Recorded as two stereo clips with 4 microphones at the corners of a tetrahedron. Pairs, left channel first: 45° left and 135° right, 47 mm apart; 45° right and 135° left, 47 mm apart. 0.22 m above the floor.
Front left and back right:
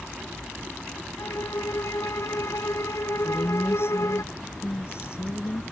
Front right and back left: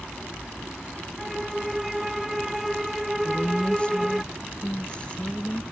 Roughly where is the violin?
Ahead left.